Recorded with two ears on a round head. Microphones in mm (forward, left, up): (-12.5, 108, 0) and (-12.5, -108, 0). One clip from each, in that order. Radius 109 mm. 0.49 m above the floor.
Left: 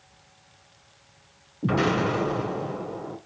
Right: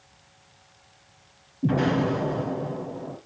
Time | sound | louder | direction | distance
1.6 | an explosion | left 1 dB | 50° left (ahead or behind) | 2 m